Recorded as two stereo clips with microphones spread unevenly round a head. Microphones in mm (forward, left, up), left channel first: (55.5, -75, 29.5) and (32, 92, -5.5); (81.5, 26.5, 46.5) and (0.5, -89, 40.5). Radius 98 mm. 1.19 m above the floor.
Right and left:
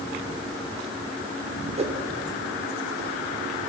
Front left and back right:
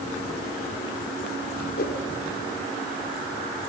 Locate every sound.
1.8 s a whoosh: 45° left, 2.5 m